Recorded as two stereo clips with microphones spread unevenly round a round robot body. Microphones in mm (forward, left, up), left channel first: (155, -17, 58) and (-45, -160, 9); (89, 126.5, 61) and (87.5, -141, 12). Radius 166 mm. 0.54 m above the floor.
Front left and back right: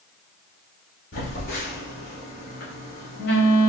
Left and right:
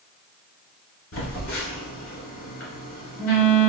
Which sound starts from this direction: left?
A phone buzzing, at 1.1 s.